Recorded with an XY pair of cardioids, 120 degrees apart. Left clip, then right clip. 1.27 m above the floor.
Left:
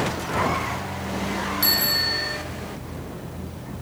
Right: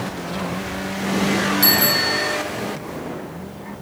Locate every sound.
1.6 s a bicycle bell: 20° right, 4 m